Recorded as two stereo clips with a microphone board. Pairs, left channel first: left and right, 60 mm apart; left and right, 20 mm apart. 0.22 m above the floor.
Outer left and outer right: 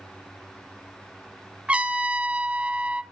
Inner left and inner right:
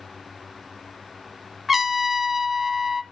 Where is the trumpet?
20° right (ahead or behind), 0.7 m.